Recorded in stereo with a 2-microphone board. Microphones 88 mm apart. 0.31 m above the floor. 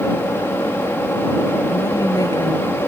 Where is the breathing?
No breathing in this recording.